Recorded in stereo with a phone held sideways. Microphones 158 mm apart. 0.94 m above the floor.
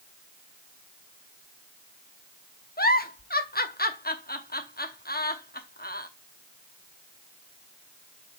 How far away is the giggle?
About 0.9 m.